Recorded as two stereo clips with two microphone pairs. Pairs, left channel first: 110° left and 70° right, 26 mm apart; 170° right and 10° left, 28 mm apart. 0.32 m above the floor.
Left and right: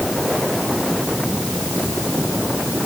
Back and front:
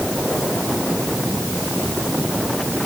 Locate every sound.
Only background noise.